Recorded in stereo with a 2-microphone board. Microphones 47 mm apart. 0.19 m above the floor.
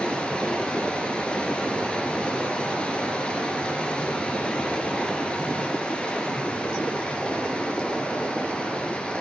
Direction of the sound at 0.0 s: 25° left (ahead or behind).